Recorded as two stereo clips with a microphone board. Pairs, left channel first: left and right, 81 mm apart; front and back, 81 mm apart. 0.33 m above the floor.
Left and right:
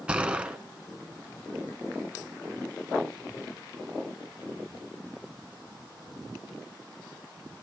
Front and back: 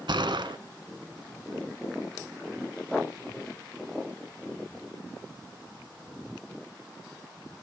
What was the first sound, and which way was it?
A gunshot, 165° right.